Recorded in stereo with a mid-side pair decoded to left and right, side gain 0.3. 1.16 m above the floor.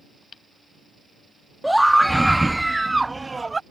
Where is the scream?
5° right; by 3.6 s 40° right.